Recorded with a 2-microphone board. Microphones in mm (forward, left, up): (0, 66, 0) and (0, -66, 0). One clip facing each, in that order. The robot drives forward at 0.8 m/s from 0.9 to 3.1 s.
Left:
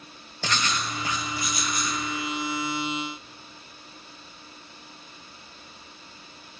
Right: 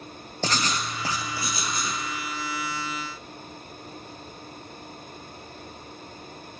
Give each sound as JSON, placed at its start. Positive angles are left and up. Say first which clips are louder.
{"t": 0.4, "sound": "writing", "louder": "right 1 dB", "side_deg": -35, "distance_m": 1.7}